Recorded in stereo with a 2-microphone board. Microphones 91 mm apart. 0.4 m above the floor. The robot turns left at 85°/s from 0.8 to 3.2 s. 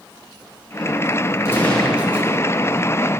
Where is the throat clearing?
I don't hear throat clearing.